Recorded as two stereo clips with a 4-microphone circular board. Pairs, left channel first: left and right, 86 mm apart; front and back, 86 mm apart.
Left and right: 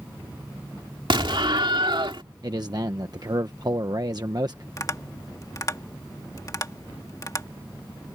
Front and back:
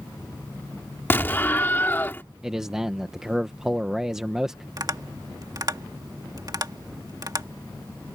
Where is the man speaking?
100° right.